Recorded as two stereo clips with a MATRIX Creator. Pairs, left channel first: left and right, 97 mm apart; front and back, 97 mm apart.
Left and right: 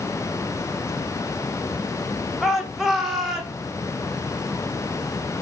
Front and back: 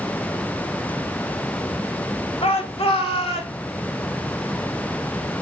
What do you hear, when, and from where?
2.4 s a shout: straight ahead, 2 m; by 3.6 s 5° right, 3 m